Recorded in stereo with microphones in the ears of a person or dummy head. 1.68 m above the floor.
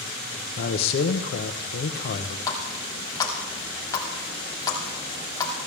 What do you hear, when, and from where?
0.6 s a man speaking: 55° left (ahead or behind), 0.9 m
2.5 s a running tap: 20° left (ahead or behind), 2.5 m